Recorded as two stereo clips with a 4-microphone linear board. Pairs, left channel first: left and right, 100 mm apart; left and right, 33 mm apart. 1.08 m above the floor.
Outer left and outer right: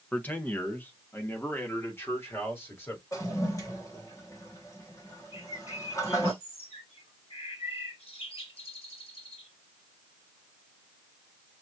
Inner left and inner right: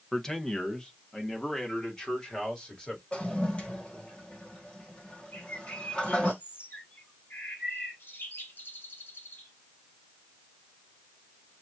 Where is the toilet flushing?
30° left (ahead or behind), 1.3 m.